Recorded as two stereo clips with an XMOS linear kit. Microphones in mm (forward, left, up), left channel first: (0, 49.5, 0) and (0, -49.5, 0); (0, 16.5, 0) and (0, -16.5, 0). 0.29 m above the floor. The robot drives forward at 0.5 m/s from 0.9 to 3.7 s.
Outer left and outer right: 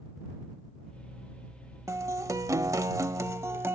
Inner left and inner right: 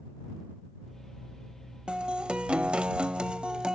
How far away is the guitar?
About 0.7 m.